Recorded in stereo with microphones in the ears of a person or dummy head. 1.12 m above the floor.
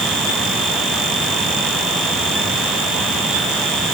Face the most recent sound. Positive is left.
No sound to turn to.